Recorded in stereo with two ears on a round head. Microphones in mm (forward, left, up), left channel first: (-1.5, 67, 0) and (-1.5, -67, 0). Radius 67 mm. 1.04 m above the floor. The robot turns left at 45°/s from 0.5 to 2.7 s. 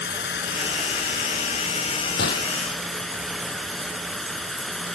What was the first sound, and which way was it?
Running water, 100° left.